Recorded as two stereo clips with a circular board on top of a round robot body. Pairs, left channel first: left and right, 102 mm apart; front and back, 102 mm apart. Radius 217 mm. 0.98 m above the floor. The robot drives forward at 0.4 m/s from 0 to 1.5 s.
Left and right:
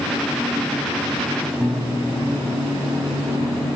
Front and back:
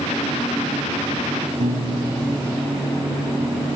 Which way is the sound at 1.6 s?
170° right.